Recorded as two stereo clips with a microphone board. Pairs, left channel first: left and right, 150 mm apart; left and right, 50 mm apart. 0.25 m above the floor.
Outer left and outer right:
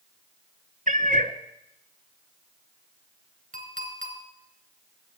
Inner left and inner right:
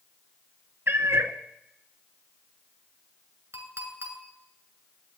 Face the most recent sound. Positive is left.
turn(degrees=-70)  # may be behind; listen again after turning